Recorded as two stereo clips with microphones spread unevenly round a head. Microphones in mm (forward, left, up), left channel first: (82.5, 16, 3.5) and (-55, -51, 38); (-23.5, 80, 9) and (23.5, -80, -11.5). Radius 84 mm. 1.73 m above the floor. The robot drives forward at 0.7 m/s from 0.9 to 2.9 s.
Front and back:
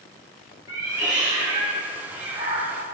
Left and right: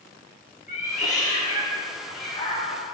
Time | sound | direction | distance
0.7 | a cat meowing | 140° left | 2 m